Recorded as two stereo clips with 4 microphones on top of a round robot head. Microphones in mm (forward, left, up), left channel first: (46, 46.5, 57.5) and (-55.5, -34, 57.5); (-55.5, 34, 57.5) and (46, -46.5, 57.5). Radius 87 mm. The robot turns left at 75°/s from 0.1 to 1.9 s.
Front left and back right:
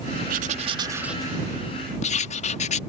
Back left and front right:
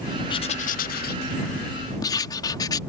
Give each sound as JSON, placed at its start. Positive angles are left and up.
{"t": 0.3, "sound": "writing", "azimuth_deg": -160}